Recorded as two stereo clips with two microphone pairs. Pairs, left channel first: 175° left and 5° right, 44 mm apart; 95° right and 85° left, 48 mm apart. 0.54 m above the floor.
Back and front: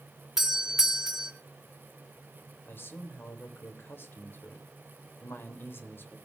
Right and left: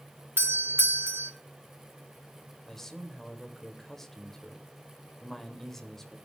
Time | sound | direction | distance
0.4 | a doorbell | 75° left | 1.9 m
2.6 | a man speaking | straight behind | 3 m